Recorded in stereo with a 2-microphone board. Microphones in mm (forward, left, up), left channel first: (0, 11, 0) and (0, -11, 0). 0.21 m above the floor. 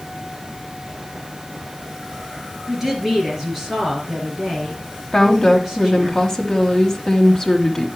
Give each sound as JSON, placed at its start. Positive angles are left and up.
{"t": 2.7, "sound": "a woman speaking", "side_deg": -15, "distance_m": 3.5}
{"t": 5.1, "sound": "a woman speaking", "side_deg": 20, "distance_m": 1.1}